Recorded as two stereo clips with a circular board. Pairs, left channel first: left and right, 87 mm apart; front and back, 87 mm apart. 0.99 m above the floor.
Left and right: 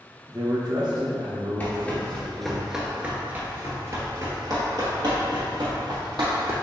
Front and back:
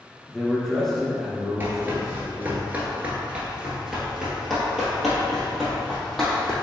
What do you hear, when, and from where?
0.3 s a man speaking: 75° right, 0.8 m; by 2.6 s 100° right, 2.0 m
1.6 s running footsteps: 135° left, 1.1 m; by 6.5 s 85° right, 2.5 m